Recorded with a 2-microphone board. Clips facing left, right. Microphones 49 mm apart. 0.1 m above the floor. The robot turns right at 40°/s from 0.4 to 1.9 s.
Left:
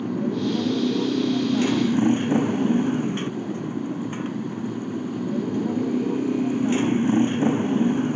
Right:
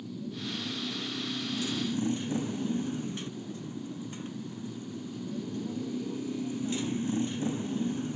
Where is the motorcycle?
70° left; by 8.2 s 130° left.